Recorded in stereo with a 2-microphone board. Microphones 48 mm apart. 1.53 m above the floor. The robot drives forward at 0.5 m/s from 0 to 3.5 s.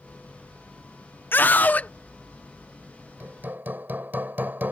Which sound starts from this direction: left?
A scream, at 1.3 s.